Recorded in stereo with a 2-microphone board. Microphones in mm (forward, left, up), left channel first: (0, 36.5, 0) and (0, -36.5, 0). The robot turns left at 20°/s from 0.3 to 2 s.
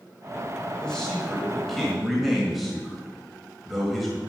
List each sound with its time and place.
0.8 s a man speaking: 10° left (ahead or behind), 1.7 m; by 4.2 s centre (ahead or behind), 1.7 m